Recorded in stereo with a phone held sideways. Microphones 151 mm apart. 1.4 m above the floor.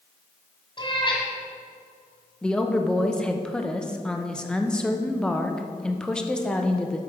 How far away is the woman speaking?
About 0.7 m.